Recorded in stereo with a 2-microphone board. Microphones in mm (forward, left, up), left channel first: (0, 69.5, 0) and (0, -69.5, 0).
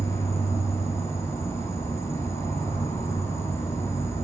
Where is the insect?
20° left (ahead or behind), 0.8 m.